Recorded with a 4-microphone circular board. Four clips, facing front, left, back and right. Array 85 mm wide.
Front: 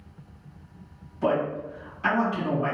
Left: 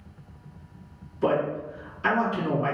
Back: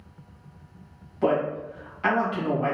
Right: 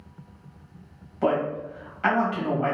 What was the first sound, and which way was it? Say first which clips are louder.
A man speaking: even, back 1 dB; 115° right.